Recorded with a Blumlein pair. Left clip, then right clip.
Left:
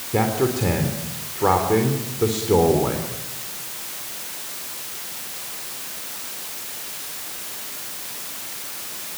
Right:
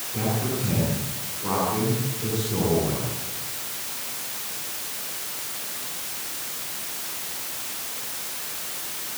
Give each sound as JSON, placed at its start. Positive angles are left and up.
{"t": 0.1, "sound": "a man speaking", "azimuth_deg": 40, "distance_m": 3.5}